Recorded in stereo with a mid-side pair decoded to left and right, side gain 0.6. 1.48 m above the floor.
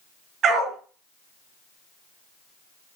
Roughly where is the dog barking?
Ahead right.